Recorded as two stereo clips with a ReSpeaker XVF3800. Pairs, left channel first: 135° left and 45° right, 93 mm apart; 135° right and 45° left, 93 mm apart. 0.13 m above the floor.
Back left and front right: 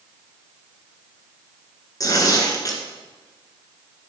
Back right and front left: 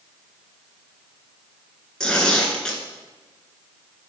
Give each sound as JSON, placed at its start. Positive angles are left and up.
{"t": 2.0, "sound": "tearing paper", "azimuth_deg": 145, "distance_m": 2.0}